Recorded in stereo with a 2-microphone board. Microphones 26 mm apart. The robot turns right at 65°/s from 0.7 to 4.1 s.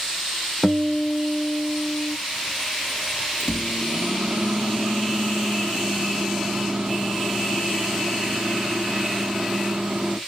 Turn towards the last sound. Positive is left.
turn(degrees=-90)